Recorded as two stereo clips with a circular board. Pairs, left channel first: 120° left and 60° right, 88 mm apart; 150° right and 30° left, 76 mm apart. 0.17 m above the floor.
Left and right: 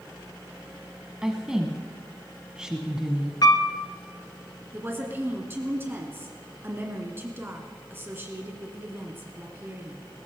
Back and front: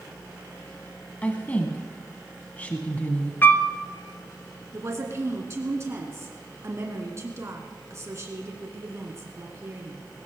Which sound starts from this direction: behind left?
A piano, at 3.4 s.